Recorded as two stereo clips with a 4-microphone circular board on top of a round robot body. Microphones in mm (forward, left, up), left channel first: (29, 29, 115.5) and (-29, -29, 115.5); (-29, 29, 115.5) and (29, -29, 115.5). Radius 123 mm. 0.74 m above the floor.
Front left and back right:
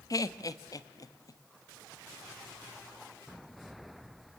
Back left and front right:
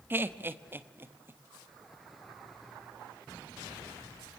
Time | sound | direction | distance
0.1 | laughter | 15° left | 1.3 m